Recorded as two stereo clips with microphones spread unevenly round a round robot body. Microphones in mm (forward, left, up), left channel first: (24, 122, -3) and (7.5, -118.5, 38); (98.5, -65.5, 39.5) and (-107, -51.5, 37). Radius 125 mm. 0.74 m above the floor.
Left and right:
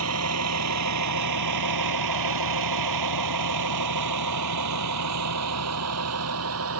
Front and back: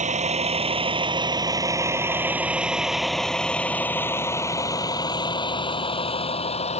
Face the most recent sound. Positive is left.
turn(degrees=-65)